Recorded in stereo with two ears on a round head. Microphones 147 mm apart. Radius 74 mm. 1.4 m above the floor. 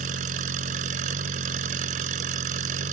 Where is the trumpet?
I don't hear a trumpet.